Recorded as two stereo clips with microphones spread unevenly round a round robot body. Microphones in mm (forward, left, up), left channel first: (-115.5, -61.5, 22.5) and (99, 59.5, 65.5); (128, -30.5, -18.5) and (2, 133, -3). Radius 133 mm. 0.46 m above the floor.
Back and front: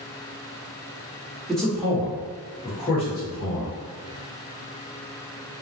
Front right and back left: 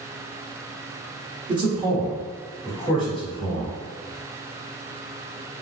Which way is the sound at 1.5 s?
150° left.